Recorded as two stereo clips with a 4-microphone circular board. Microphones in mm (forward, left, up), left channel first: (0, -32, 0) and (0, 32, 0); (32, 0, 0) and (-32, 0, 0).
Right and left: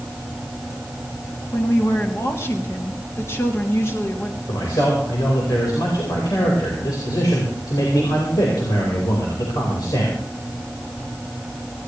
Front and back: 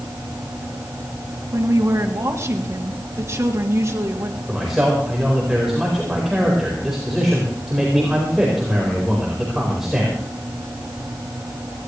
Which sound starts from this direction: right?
A man speaking, at 4.5 s.